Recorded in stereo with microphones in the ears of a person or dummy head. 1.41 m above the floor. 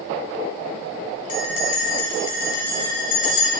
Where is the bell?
45° left (ahead or behind), 1.3 m.